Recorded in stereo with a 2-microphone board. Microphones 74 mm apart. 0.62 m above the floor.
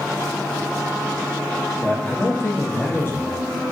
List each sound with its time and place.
1.8 s a man speaking: 30° left (ahead or behind), 0.7 m